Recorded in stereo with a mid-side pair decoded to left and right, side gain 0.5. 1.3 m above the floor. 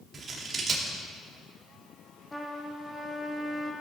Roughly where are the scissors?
Ahead right.